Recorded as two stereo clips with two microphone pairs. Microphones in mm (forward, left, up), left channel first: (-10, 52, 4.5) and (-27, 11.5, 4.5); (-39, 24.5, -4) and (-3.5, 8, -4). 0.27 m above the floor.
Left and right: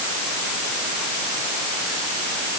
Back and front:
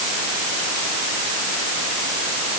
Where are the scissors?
No scissors in this recording.